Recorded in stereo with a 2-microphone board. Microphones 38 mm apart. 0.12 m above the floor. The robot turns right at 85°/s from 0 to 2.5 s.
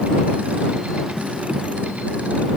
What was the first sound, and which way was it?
Only background noise.